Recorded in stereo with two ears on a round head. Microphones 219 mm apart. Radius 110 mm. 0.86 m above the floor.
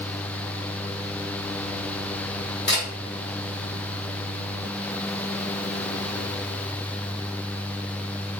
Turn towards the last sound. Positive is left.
turn(degrees=45)  # may be behind; listen again after turning